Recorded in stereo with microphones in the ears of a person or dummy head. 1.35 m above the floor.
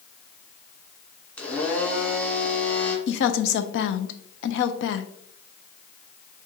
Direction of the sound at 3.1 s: 70° left (ahead or behind).